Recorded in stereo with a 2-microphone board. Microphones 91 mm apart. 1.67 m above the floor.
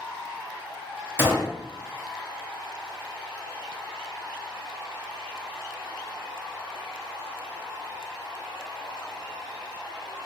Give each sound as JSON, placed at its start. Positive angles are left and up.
{"t": 1.2, "sound": "a gunshot", "side_deg": -25, "distance_m": 0.8}